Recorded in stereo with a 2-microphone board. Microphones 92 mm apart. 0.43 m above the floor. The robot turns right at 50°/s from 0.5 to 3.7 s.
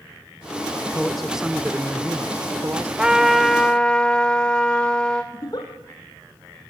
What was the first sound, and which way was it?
A man speaking, 5° left (ahead or behind).